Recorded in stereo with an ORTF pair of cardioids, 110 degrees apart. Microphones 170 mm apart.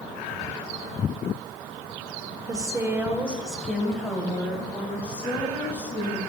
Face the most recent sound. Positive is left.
turn(degrees=15)